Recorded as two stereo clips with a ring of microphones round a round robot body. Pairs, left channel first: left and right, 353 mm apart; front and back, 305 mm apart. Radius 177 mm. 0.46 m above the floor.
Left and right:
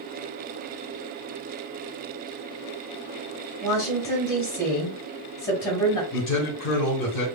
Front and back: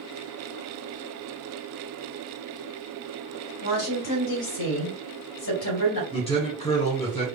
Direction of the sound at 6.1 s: 70° left.